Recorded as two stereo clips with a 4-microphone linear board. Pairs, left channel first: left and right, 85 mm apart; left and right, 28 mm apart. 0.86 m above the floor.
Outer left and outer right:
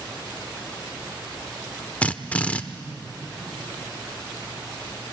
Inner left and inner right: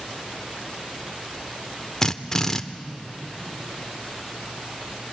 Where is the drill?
20° left (ahead or behind), 0.9 m.